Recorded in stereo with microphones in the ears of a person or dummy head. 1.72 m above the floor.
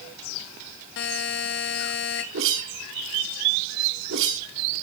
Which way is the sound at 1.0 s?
70° left (ahead or behind).